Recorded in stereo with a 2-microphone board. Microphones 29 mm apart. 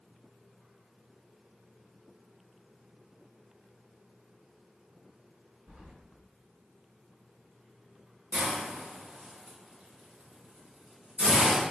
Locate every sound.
5.7 s keys jangling: 60° right (ahead or behind), 1.4 m
8.3 s a hiss: 45° right (ahead or behind), 1.2 m